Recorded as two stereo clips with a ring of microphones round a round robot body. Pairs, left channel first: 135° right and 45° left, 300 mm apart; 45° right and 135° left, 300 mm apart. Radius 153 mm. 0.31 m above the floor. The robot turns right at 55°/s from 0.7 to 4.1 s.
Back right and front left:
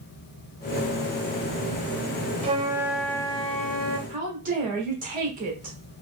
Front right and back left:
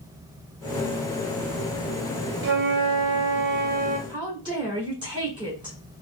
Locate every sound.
2.4 s a flute: 105° left, 0.8 m; by 4.0 s 170° right, 0.8 m
4.1 s a woman speaking: 75° left, 1.6 m